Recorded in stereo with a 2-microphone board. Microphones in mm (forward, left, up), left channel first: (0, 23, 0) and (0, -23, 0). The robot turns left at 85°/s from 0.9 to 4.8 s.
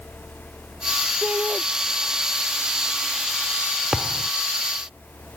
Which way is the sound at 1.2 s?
130° right.